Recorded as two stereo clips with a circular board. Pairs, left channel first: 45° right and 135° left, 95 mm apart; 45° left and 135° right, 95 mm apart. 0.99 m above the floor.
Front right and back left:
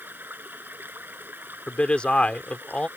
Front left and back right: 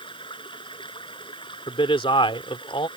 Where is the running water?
65° left.